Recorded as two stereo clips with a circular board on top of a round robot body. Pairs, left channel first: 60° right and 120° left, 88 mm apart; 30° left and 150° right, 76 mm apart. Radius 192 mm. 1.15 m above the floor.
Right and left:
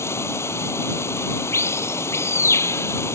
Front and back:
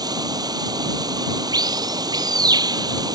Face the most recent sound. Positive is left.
turn(degrees=-120)